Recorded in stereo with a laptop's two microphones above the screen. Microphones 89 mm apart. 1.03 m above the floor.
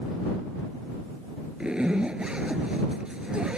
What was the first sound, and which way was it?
A zipper, 10° right (ahead or behind).